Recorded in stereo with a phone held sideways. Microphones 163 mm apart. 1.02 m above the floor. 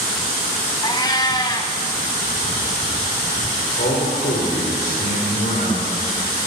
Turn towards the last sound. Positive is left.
turn(degrees=85)